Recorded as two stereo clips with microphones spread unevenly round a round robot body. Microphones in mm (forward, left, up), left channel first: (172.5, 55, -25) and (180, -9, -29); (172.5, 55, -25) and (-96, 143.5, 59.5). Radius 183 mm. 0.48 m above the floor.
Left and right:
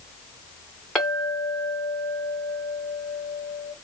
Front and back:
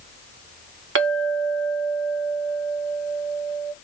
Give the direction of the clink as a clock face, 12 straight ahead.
6 o'clock.